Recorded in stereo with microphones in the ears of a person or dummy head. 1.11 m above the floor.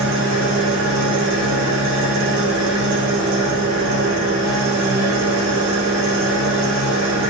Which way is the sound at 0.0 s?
65° right (ahead or behind).